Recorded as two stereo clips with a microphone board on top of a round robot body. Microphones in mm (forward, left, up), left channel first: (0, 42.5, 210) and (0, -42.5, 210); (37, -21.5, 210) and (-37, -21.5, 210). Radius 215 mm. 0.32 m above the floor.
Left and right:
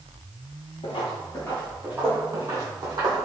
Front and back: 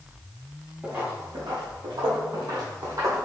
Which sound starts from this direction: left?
Footsteps, at 0.8 s.